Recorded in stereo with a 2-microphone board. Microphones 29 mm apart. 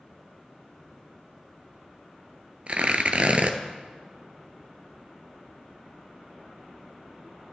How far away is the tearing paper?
About 0.9 m.